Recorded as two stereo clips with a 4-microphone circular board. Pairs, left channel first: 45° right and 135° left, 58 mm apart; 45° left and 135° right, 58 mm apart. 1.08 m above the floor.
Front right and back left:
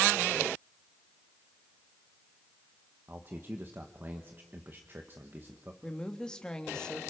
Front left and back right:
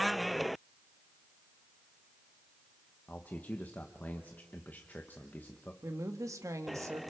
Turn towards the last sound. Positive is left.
turn(degrees=-120)